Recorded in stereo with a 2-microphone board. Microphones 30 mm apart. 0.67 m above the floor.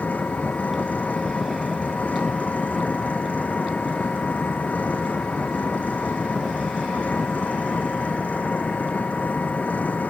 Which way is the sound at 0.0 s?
60° left (ahead or behind).